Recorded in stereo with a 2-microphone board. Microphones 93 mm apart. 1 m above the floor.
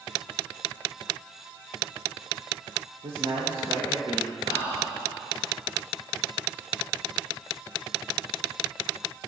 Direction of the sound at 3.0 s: 70° right (ahead or behind).